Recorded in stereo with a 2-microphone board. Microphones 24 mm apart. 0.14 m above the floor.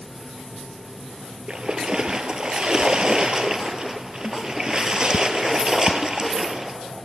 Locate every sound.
1.5 s a splash: 35° right (ahead or behind), 0.5 m